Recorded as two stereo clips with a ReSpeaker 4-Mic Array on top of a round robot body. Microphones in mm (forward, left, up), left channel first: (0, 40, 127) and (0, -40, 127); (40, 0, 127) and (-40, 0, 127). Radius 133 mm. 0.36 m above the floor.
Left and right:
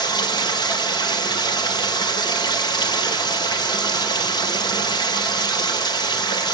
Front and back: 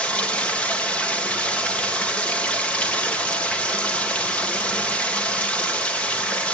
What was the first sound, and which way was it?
Running water, 70° left.